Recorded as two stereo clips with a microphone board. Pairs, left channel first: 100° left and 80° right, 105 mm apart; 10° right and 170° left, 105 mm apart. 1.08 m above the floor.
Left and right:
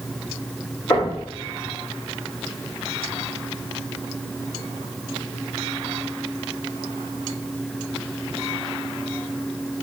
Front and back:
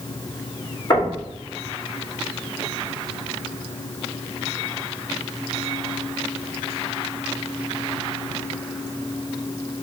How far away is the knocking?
About 2 m.